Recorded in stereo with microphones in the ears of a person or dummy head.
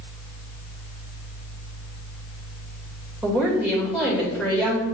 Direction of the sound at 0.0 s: 60° left (ahead or behind).